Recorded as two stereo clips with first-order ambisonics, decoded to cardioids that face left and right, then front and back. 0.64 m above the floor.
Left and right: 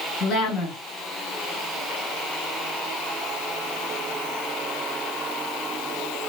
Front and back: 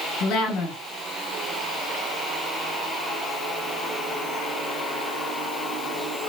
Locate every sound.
0.2 s a woman speaking: 35° left, 2.5 m